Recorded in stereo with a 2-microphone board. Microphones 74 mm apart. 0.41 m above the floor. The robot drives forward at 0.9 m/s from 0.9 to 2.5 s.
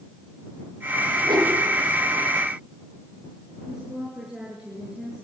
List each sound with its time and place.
1.2 s a whoosh: 85° right, 9.5 m
3.7 s a woman speaking: 10° right (ahead or behind), 5.5 m